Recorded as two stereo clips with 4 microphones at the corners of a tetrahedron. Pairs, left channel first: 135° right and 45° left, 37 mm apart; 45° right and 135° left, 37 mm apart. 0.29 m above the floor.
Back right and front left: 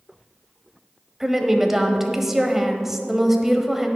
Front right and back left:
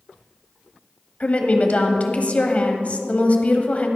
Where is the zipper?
I don't hear a zipper.